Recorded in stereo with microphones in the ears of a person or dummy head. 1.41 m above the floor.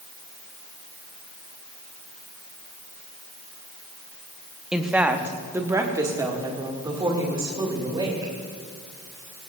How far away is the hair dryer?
No hair dryer in this recording.